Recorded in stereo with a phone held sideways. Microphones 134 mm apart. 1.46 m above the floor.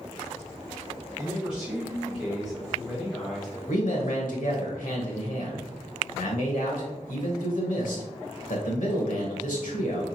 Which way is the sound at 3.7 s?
75° left (ahead or behind).